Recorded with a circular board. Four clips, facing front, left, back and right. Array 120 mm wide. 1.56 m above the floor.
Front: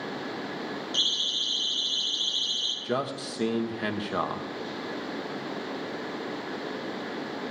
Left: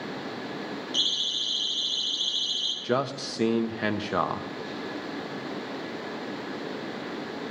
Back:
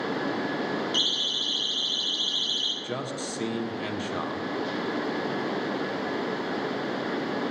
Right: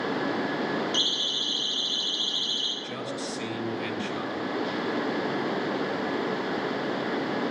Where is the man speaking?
75° left, 1.0 m.